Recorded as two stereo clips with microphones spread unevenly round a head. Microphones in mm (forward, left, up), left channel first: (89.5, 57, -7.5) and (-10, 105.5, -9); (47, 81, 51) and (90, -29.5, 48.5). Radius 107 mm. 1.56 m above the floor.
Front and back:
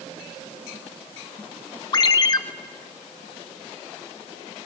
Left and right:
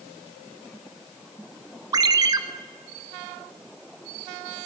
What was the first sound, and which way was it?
A ringtone, 30° right.